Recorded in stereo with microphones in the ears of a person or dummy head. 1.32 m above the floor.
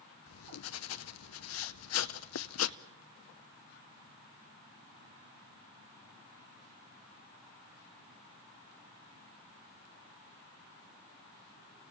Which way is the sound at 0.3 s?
80° left.